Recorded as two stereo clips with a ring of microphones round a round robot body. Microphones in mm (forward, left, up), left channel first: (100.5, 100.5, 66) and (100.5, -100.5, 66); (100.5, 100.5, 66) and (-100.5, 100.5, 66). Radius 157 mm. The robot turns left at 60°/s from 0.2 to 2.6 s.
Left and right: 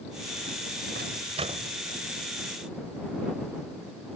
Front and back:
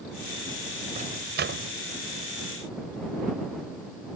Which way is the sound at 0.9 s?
125° right.